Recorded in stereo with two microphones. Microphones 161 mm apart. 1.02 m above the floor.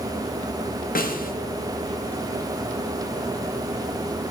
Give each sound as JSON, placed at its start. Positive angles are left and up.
{"t": 0.9, "sound": "a snare drum", "side_deg": 70, "distance_m": 0.9}